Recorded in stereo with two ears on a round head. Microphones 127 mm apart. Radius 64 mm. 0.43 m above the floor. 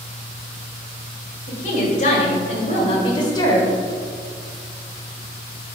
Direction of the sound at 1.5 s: 60° left (ahead or behind).